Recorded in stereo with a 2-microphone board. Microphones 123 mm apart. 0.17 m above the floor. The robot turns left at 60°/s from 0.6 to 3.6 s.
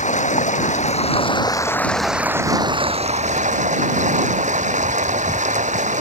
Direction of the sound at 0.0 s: 85° left.